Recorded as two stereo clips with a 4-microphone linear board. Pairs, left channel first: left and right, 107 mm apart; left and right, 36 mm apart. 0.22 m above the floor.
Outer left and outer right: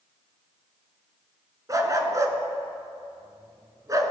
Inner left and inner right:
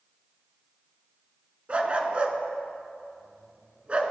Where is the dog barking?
30° right (ahead or behind), 1.0 m.